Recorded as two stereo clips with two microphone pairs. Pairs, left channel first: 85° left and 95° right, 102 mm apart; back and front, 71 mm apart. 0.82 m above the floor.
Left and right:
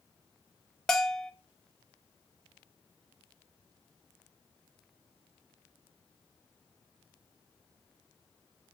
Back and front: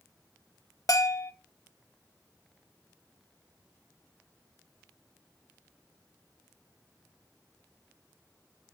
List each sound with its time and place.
0.9 s a bell: 170° left, 0.9 m